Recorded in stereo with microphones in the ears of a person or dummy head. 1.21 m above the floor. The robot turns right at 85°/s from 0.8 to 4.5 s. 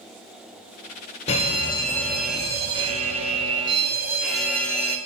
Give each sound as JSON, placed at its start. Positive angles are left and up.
{"t": 1.3, "sound": "a fire alarm", "side_deg": 25, "distance_m": 1.2}